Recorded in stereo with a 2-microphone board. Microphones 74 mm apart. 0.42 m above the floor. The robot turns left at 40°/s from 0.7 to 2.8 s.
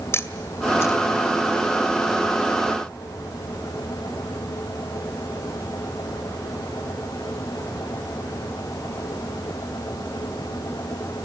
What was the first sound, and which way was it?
A camera shutter, 40° left (ahead or behind).